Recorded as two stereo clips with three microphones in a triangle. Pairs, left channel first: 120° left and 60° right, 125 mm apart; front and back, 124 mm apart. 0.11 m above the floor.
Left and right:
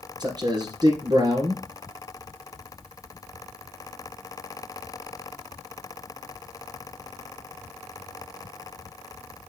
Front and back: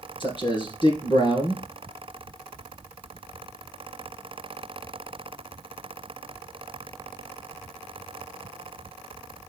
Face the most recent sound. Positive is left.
turn(degrees=-20)